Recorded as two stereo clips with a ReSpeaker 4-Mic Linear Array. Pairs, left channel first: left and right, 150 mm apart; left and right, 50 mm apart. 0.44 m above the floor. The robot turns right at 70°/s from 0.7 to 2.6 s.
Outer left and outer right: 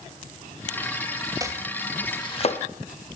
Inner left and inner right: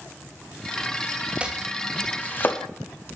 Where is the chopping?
25° right (ahead or behind), 0.9 m; by 2.6 s 50° left (ahead or behind), 0.9 m.